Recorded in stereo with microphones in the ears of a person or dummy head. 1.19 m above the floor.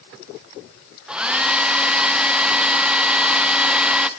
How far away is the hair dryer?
About 0.7 m.